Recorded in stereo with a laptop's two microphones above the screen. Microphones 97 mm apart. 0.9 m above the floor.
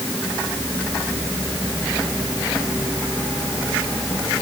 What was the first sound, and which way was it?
Only background noise.